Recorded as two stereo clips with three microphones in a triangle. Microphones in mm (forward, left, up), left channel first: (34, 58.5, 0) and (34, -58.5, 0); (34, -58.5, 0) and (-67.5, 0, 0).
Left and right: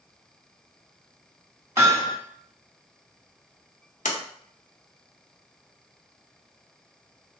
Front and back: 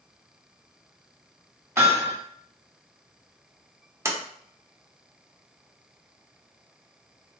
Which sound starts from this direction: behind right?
Hammering, at 1.8 s.